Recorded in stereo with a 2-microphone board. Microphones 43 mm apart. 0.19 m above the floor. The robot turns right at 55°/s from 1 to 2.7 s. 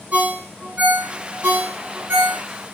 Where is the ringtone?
35° right (ahead or behind), 0.7 m; by 2.4 s 45° right (ahead or behind), 0.7 m.